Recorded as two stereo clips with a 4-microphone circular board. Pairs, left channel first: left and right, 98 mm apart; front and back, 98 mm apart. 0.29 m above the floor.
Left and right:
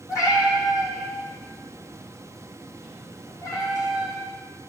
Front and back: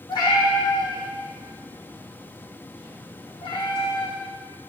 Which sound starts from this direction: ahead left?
A cat meowing, at 0.1 s.